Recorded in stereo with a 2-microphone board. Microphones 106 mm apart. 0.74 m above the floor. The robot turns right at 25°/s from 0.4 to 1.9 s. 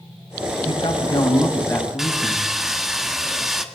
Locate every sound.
0.7 s a man speaking: 130° left, 5 m; by 2.5 s 160° left, 5 m
2.0 s sawing: 5° right (ahead or behind), 1.6 m